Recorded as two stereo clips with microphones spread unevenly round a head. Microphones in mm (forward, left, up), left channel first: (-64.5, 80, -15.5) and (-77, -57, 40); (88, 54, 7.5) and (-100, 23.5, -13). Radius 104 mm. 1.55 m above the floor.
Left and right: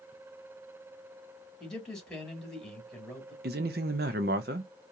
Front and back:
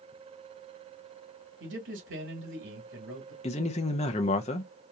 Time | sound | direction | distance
1.6 | a man speaking | 170° left | 2.5 m
3.4 | a man speaking | 55° right | 0.5 m